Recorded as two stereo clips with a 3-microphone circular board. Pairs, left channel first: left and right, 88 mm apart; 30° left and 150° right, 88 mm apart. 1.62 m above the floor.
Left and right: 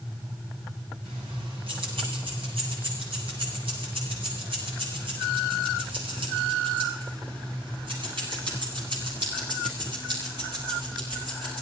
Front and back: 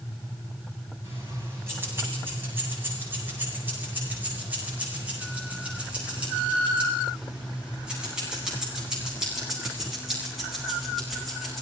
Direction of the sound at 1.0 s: 90° right.